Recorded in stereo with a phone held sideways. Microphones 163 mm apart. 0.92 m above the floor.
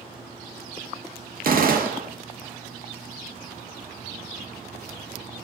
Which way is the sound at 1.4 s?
65° right (ahead or behind).